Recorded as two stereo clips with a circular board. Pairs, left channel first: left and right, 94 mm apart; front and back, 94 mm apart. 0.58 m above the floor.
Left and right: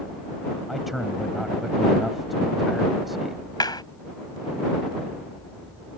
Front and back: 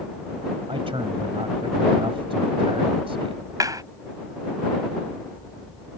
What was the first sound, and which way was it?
A man speaking, straight behind.